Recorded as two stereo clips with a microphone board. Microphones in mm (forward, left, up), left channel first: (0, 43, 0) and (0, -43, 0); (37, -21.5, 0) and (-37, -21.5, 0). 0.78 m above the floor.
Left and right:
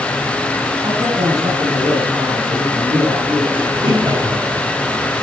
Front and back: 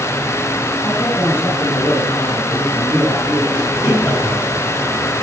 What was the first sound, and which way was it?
A man speaking, 55° right.